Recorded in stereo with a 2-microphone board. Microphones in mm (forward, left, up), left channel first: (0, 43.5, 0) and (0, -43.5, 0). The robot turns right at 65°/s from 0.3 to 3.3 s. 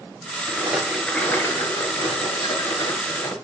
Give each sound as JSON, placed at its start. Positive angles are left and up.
{"t": 0.5, "sound": "a rattle", "azimuth_deg": -35, "distance_m": 2.0}